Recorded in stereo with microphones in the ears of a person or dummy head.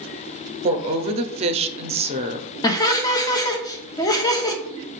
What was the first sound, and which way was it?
A woman speaking, 30° right (ahead or behind).